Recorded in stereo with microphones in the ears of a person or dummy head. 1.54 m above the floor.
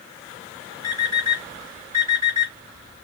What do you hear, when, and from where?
0.8 s an alarm clock: 20° left (ahead or behind), 2.5 m